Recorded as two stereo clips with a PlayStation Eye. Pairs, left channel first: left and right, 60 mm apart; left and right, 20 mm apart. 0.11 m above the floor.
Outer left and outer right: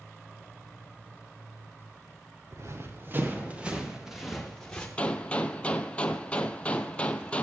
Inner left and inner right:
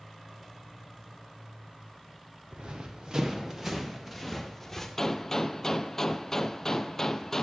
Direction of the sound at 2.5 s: 50° right (ahead or behind).